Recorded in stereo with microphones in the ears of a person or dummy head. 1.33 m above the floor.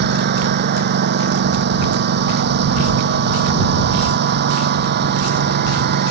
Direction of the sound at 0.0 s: 50° right (ahead or behind).